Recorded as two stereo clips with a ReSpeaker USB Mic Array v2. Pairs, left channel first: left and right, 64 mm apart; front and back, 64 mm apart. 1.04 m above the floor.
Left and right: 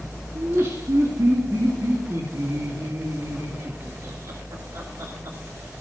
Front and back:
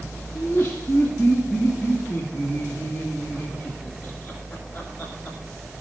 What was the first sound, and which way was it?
Laughter, 75° right.